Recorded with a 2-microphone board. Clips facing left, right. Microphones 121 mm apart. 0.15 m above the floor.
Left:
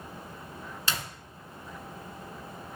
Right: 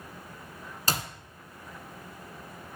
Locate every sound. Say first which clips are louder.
0.9 s a clap: right 4 dB; 40° right (ahead or behind), 1.4 m